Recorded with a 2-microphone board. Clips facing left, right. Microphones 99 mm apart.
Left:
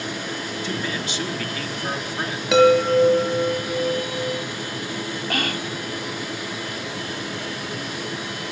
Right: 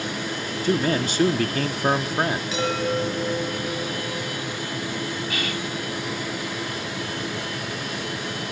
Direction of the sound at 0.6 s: 45° right (ahead or behind).